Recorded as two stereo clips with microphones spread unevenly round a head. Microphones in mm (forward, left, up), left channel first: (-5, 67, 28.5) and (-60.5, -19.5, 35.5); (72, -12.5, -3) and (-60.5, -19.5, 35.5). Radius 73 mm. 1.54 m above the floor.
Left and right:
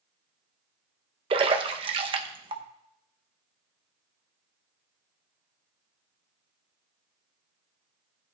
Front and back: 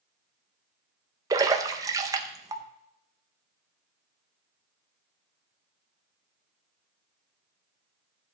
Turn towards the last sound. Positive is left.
turn(degrees=-135)